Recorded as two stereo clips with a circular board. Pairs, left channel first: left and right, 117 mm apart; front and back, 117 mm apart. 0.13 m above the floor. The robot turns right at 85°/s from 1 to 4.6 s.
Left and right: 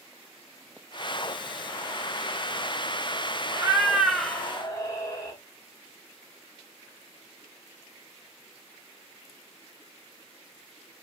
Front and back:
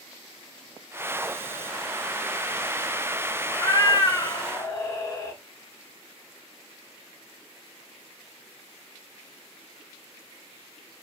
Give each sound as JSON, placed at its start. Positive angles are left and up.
{"t": 3.5, "sound": "a cat meowing", "azimuth_deg": -45, "distance_m": 0.8}